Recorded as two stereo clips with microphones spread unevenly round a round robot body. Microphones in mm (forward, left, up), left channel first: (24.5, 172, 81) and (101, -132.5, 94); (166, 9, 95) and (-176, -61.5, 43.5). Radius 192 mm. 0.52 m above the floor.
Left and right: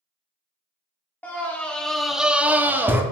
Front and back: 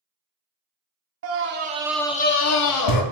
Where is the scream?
175° right, 1.0 m; by 3.0 s 10° left, 1.1 m.